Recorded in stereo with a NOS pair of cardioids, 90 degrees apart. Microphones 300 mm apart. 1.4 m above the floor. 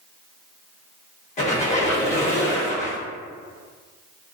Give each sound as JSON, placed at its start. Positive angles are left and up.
{"t": 1.4, "sound": "a squeak", "azimuth_deg": 25, "distance_m": 1.0}